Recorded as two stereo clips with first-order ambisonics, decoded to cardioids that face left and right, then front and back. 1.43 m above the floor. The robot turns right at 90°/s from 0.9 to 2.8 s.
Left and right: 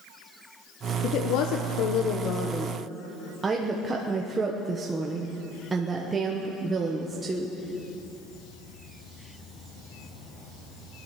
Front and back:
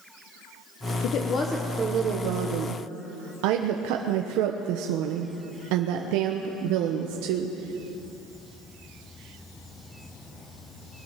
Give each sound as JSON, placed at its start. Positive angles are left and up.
{"t": 1.0, "sound": "a woman speaking", "azimuth_deg": 35, "distance_m": 1.0}